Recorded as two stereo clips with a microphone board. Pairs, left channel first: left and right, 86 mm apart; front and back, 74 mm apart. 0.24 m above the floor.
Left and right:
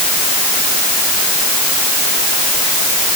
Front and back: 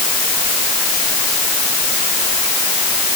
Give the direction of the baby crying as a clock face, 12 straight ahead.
No baby crying in this recording.